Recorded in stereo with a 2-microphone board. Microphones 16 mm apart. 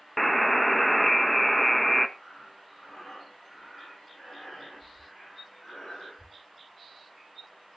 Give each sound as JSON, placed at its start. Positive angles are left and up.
{"t": 0.2, "sound": "a buzzer", "side_deg": 10, "distance_m": 0.7}
{"t": 2.2, "sound": "breathing", "side_deg": 50, "distance_m": 7.0}